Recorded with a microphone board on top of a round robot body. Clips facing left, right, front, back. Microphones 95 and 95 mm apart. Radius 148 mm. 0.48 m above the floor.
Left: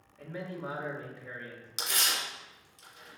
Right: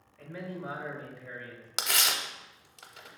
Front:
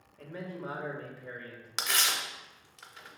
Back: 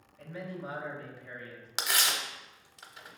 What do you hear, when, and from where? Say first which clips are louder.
0.2 s a man speaking: even, even; 25° left, 1.4 m
1.8 s tearing paper: right 2 dB, back 1 dB; 100° right, 0.7 m